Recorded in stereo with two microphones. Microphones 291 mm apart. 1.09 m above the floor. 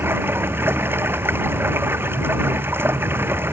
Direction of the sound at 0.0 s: 5° right (ahead or behind).